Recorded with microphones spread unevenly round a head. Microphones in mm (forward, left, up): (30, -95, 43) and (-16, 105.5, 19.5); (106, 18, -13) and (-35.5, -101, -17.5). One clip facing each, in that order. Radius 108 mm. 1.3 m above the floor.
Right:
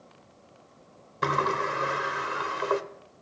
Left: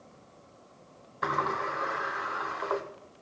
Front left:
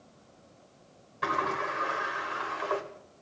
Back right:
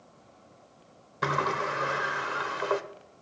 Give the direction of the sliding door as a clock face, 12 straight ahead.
4 o'clock.